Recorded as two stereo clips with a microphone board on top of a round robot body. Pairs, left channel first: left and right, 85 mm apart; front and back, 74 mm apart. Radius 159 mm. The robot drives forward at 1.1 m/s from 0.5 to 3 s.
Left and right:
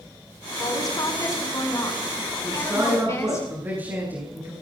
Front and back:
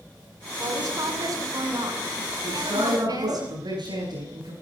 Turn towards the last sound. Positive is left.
turn(degrees=-155)